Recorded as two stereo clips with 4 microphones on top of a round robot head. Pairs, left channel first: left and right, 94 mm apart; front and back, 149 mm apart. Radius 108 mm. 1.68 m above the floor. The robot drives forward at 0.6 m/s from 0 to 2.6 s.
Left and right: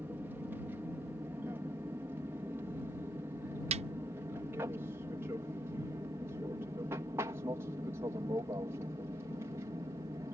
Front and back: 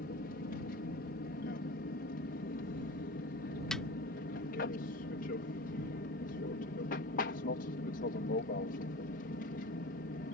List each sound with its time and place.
0.0 s an aircraft: 15° right; by 10.4 s 25° right
3.7 s a snare drum: 90° right